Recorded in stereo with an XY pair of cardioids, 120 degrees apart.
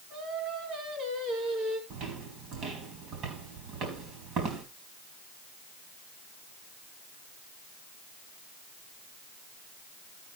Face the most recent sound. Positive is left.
turn(degrees=-65)